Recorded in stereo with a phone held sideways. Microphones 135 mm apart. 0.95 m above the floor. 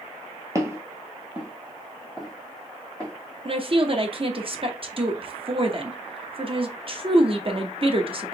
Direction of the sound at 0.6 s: 25° right (ahead or behind).